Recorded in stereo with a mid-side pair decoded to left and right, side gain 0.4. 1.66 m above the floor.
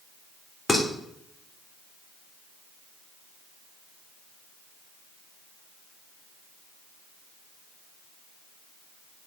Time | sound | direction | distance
0.7 | dishes clattering | 35° left | 3.5 m